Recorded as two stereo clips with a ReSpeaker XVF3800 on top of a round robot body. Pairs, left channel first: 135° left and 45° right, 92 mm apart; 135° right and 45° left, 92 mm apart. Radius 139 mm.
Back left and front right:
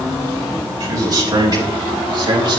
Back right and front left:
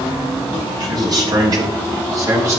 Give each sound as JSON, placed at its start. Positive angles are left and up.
{"t": 0.8, "sound": "a man speaking", "azimuth_deg": 5, "distance_m": 5.5}